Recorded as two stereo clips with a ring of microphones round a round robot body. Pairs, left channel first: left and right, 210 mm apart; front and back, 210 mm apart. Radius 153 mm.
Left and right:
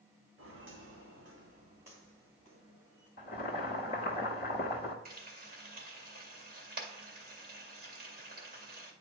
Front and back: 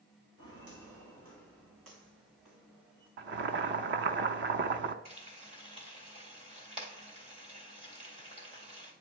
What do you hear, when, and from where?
0.4 s footsteps: 135° right, 1.8 m; by 3.1 s 175° right, 3 m
3.2 s boiling: 150° left, 0.7 m
5.0 s frying: 125° right, 1.8 m